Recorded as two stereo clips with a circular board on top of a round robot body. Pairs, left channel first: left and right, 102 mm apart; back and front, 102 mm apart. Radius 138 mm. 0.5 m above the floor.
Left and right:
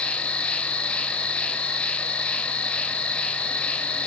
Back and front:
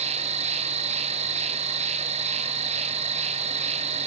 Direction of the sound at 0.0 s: 10° left.